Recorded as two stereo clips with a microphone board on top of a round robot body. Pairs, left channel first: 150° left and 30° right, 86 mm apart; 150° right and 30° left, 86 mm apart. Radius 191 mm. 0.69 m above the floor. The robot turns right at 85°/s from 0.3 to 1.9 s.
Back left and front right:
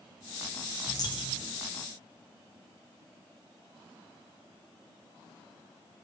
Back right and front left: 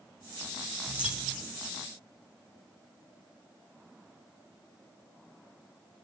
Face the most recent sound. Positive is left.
turn(degrees=180)